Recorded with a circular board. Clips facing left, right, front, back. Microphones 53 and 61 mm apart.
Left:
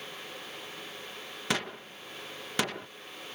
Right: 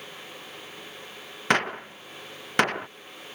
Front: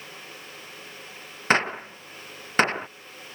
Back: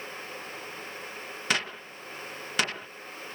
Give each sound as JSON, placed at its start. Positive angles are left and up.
{"t": 1.5, "sound": "a gunshot", "azimuth_deg": -50}